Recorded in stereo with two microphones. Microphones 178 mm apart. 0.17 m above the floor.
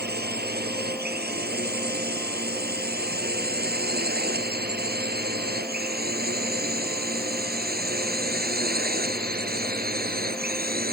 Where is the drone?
60° right (ahead or behind); by 10.9 s 55° right (ahead or behind).